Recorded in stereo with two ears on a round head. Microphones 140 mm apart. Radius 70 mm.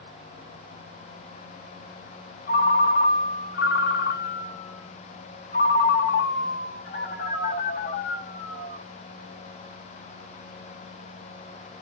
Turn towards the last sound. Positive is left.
turn(degrees=55)  # may be behind; listen again after turning